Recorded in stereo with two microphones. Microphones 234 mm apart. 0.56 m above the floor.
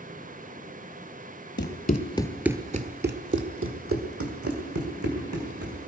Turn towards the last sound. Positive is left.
turn(degrees=-80)